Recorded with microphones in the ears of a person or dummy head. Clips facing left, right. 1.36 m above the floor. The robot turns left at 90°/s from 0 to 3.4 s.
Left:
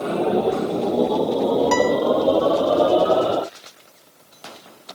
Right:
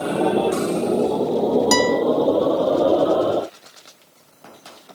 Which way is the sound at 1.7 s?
45° right (ahead or behind).